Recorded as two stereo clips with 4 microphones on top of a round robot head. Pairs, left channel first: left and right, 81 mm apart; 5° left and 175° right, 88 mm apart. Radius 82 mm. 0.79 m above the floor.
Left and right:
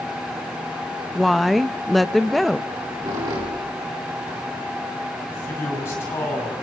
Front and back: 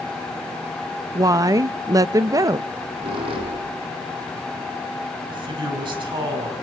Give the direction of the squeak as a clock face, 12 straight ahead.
5 o'clock.